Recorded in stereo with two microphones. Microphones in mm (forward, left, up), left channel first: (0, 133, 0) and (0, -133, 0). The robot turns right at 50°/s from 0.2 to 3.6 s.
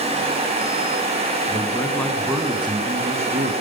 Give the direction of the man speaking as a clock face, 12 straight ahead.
7 o'clock.